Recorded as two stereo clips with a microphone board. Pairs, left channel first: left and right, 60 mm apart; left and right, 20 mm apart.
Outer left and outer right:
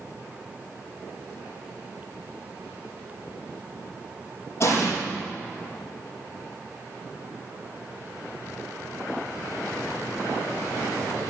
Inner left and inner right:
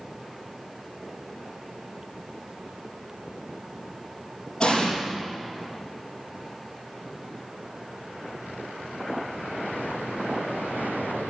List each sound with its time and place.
4.6 s an explosion: 40° left (ahead or behind), 4.5 m